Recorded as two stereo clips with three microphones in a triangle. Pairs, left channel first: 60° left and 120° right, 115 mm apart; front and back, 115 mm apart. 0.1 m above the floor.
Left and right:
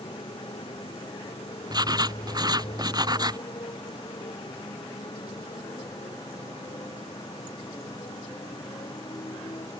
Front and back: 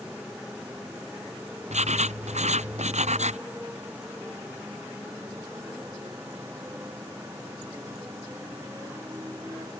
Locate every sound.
0.0 s a motorcycle: 100° left; by 9.8 s 110° left
1.7 s writing: 175° right